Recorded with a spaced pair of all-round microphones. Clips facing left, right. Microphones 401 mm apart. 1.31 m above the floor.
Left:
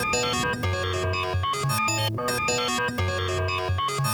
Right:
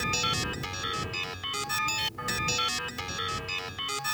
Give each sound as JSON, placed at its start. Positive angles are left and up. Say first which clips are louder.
{"t": 0.0, "sound": "a machine running", "louder": "left 8 dB", "side_deg": 85}